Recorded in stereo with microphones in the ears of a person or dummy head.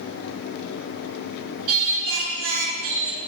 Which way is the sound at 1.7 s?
85° right.